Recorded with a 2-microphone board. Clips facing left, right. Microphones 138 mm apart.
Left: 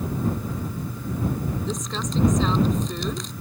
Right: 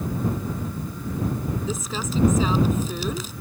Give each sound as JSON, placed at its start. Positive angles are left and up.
{"t": 1.7, "sound": "crumpling", "side_deg": -5}